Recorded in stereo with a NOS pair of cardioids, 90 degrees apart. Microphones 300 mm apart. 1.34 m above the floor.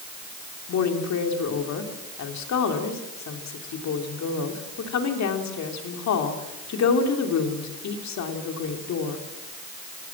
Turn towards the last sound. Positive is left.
turn(degrees=65)